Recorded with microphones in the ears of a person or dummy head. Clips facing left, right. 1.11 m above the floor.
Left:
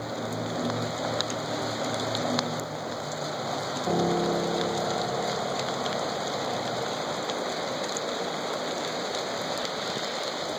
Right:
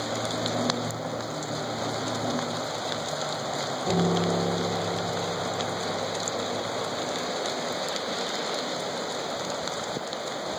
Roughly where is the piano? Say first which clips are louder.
Even; centre.